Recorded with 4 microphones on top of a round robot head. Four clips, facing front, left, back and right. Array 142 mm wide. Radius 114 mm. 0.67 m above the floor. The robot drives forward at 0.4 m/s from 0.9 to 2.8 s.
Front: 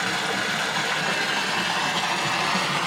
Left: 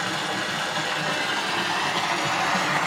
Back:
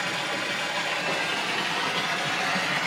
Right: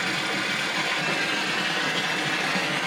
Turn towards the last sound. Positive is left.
turn(degrees=60)